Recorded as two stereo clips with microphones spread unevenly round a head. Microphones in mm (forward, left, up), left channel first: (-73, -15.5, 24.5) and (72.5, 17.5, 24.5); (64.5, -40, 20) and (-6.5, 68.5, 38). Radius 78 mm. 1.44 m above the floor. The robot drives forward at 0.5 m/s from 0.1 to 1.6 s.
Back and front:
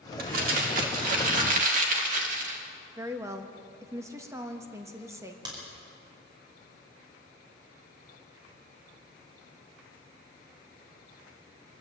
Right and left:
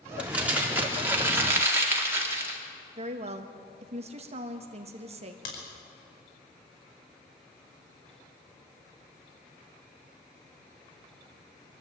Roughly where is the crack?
Ahead right.